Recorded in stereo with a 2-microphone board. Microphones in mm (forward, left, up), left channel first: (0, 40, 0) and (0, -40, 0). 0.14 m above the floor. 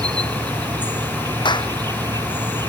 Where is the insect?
65° right (ahead or behind).